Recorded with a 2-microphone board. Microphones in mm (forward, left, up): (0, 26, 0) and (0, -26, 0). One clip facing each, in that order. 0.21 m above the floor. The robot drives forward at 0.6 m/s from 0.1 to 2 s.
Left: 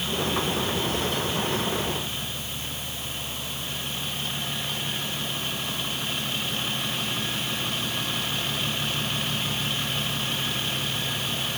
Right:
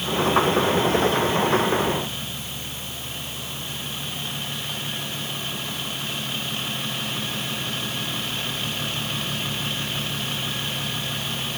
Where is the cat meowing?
I don't hear a cat meowing.